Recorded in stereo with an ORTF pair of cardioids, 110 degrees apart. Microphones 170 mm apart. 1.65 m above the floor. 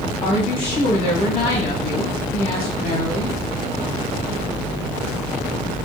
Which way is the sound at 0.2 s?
60° left.